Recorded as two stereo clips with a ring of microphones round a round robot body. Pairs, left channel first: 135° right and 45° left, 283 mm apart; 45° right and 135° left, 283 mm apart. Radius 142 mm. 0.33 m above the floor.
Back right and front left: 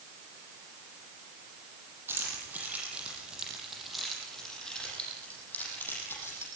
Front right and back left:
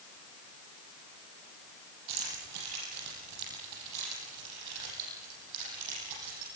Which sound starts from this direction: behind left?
Keys jangling, at 2.1 s.